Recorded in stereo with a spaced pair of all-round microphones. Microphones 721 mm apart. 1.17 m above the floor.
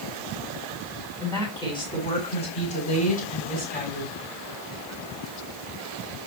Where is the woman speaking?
5° left (ahead or behind), 8.5 m; by 4.2 s 15° left (ahead or behind), 9.5 m.